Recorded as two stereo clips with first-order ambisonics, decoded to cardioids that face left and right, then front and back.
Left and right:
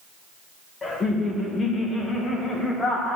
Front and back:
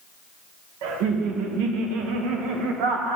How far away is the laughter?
About 1.0 m.